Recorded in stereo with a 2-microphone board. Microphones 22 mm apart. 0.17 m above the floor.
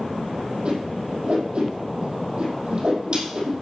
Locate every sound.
0.7 s a whoosh: 60° right (ahead or behind), 5 m